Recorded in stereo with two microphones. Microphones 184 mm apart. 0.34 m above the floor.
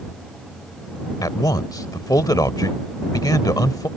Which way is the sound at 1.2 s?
20° left (ahead or behind).